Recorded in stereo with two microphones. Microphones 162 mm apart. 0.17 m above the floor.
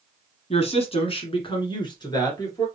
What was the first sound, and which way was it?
A woman speaking, 40° left (ahead or behind).